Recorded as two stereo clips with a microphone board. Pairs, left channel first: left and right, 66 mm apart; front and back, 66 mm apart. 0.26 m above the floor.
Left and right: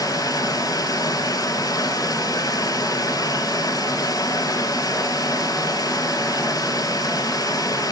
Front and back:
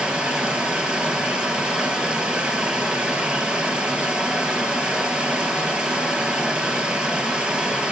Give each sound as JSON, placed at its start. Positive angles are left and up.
{"t": 0.0, "sound": "running water", "azimuth_deg": 105, "distance_m": 3.0}